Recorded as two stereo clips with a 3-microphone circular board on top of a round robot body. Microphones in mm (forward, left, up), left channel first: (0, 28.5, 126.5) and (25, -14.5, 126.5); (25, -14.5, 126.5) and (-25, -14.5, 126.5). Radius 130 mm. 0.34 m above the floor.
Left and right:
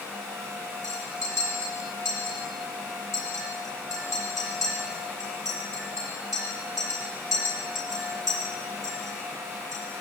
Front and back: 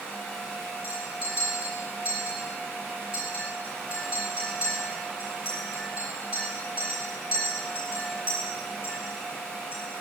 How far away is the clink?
About 9 m.